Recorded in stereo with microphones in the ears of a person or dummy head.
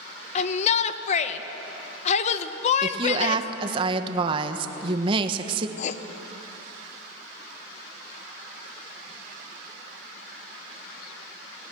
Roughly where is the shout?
Left.